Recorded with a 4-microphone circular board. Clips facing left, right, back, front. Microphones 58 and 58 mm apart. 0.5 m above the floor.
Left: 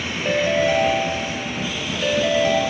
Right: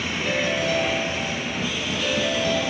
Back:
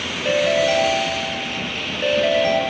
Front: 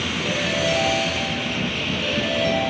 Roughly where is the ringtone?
Behind left.